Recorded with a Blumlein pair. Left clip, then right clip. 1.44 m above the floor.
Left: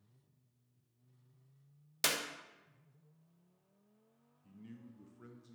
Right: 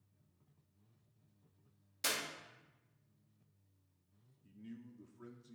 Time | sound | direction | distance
2.0 | a clap | 35° left | 1.0 m
4.4 | a man speaking | straight ahead | 0.7 m